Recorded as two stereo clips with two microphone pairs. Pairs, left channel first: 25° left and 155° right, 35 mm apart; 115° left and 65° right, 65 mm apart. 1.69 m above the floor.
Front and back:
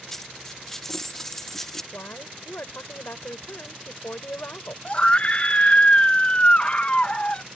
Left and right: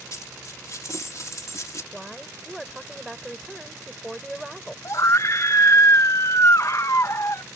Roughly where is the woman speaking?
Ahead left.